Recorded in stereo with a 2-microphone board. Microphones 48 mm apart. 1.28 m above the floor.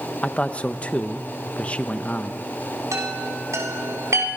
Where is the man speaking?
25° left (ahead or behind), 1.1 m.